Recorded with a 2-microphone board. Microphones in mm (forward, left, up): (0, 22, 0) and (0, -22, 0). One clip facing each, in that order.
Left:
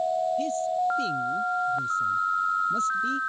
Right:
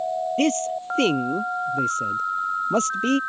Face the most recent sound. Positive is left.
turn(degrees=-70)  # may be behind; listen again after turning